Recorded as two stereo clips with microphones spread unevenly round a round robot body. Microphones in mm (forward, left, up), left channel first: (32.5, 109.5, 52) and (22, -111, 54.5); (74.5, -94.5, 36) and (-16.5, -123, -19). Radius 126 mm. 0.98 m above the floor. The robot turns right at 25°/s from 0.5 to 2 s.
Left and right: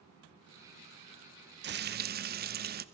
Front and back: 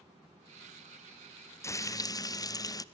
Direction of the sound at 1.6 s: 65° right.